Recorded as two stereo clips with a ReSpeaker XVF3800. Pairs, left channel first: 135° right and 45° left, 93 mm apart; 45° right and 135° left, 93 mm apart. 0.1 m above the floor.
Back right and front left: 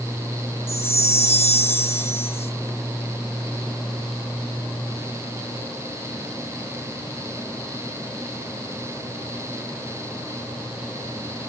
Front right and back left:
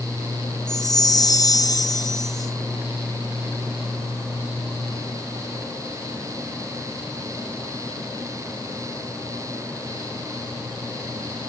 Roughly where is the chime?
Right.